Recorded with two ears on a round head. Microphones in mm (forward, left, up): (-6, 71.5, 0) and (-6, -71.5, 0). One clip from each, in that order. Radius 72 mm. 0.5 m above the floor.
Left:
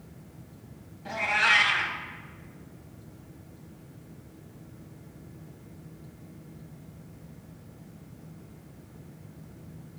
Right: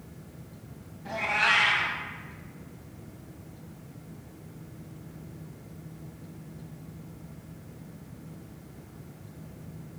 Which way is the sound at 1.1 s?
20° left (ahead or behind).